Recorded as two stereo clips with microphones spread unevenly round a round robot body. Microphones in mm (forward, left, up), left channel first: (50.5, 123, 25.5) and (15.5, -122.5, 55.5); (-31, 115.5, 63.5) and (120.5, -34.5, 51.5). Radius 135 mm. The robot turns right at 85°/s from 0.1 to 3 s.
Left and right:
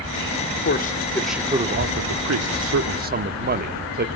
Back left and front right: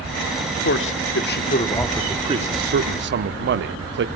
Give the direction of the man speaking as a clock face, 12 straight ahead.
8 o'clock.